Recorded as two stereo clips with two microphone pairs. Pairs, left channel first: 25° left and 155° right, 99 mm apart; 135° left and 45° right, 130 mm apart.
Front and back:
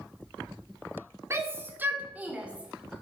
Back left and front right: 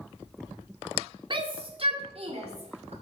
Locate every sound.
1.3 s a shout: 90° right, 1.9 m; by 2.9 s 70° right, 2.5 m